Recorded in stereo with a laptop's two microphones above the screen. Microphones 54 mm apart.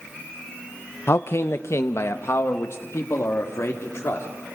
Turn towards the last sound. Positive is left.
turn(degrees=55)  # may be behind; listen again after turning